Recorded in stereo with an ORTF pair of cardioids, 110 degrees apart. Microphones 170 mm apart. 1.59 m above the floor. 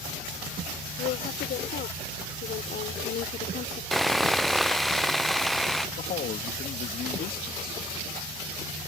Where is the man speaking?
55° left.